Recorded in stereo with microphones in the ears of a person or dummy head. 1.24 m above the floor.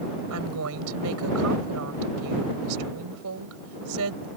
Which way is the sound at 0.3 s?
80° right.